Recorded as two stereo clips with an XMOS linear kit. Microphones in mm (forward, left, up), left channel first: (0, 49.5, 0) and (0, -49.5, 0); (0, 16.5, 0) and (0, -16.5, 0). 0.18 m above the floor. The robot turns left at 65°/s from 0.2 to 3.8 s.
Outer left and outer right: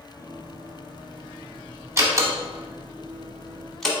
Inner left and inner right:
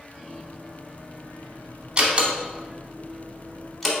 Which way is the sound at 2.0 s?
30° right (ahead or behind).